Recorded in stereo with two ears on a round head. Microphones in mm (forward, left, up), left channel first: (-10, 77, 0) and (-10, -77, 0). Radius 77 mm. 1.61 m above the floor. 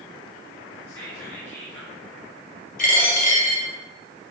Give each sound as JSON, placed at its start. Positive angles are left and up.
{"t": 0.9, "sound": "whispering", "side_deg": 15, "distance_m": 4.0}
{"t": 2.8, "sound": "a dropped coin", "side_deg": 55, "distance_m": 3.0}